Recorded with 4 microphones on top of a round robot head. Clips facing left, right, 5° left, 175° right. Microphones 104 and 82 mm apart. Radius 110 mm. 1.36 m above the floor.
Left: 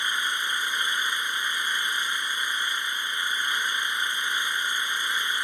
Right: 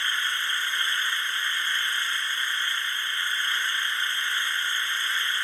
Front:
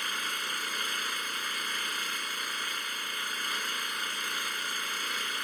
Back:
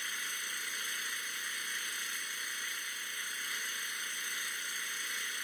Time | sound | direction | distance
0.0 | an engine running | 15° left | ?